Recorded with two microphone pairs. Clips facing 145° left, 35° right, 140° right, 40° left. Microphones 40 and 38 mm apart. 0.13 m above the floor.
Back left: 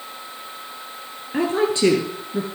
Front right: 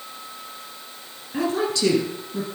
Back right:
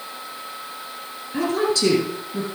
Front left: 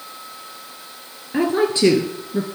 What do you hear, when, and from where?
1.3 s a woman speaking: 90° left, 2 m